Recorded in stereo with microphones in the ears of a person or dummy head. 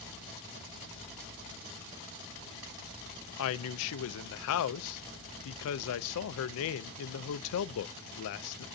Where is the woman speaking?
80° left, 0.5 m.